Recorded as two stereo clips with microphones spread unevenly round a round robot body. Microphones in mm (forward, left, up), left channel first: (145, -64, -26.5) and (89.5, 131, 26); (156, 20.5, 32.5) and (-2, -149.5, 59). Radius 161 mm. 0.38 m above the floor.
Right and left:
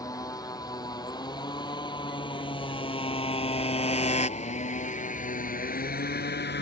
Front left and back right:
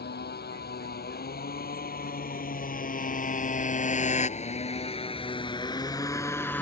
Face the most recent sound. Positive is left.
turn(degrees=-35)